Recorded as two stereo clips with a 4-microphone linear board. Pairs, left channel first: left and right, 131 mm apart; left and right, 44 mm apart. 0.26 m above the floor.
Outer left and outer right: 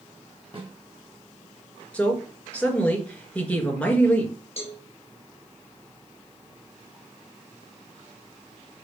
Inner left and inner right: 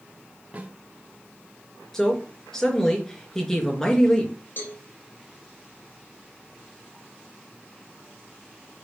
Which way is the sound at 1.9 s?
10° left (ahead or behind).